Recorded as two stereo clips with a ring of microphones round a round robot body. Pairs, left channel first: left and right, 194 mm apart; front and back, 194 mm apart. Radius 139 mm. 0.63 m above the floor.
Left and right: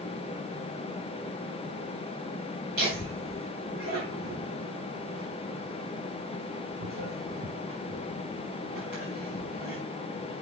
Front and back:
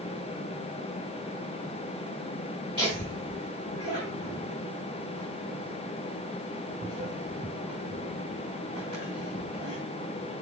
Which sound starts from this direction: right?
Laughter, at 2.8 s.